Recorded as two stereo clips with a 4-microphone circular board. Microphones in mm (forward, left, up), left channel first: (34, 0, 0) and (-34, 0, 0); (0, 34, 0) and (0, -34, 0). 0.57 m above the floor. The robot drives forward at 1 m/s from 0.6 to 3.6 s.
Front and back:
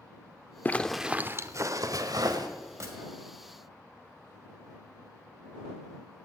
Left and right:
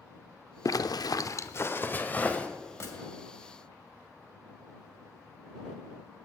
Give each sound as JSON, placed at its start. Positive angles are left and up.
{"t": 0.7, "sound": "a zipper", "azimuth_deg": 60, "distance_m": 0.6}
{"t": 2.8, "sound": "a gunshot", "azimuth_deg": 140, "distance_m": 2.5}